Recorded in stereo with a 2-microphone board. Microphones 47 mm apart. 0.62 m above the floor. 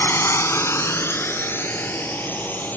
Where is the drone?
60° left (ahead or behind); by 2.8 s 45° left (ahead or behind).